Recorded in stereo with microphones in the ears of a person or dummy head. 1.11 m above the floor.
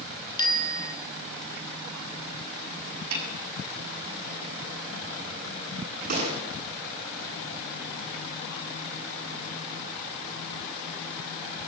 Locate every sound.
0.4 s a bicycle bell: 25° left (ahead or behind), 2.5 m
3.1 s a snare drum: 80° right, 7.5 m
6.1 s a gunshot: 50° right (ahead or behind), 9.5 m